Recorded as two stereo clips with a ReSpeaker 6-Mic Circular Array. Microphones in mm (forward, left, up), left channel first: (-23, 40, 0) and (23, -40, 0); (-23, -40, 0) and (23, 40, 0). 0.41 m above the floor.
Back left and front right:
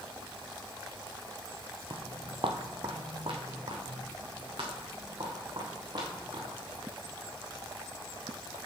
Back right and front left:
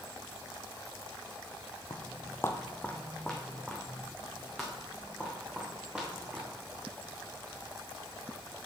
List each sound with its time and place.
1.9 s footsteps: 85° right, 0.6 m; by 6.5 s 25° right, 3.5 m